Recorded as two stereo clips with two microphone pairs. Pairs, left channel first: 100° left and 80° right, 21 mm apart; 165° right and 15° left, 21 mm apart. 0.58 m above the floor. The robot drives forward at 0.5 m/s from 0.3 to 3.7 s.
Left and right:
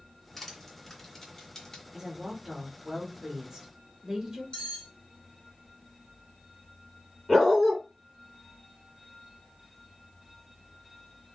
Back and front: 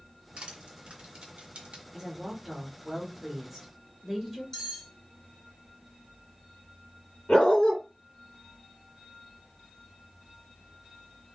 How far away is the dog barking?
About 1.8 m.